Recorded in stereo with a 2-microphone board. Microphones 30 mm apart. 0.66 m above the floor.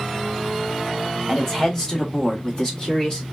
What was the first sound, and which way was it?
A man speaking, 15° left (ahead or behind).